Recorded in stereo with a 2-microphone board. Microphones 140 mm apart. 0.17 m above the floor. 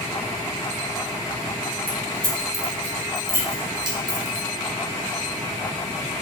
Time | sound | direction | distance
1.9 | keys jangling | 50° left (ahead or behind) | 1.0 m